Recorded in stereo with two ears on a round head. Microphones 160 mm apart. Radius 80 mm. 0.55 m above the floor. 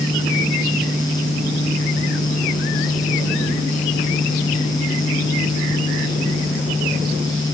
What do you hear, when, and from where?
Only background noise.